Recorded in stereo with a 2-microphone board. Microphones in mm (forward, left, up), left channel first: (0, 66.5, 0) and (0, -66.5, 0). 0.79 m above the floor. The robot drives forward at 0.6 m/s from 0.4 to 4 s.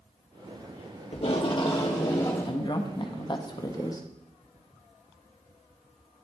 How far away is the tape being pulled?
About 0.8 m.